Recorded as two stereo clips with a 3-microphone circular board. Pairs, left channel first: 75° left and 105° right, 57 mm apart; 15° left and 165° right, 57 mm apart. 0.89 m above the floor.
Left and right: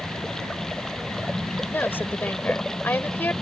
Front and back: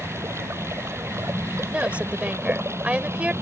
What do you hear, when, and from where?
0.0 s running water: 155° left
1.7 s a woman speaking: 130° left